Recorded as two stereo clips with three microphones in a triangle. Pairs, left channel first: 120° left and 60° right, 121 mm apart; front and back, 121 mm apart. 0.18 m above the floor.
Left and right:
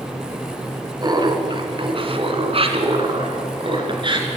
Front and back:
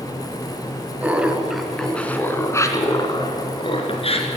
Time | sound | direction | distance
1.0 | laughter | 105° right | 2.5 m